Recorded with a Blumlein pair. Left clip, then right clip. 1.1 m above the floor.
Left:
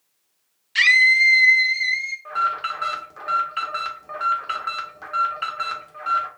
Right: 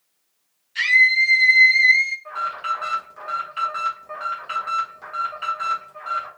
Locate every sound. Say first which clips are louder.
0.8 s a scream: left 1 dB; 60° left, 0.7 m; by 2.1 s 40° right, 0.8 m
2.2 s an alarm: left 2 dB; 15° left, 0.9 m